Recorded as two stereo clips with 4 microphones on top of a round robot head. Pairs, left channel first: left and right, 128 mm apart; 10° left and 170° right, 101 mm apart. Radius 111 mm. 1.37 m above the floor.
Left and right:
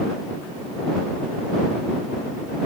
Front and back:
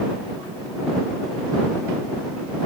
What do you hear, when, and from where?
Only background noise.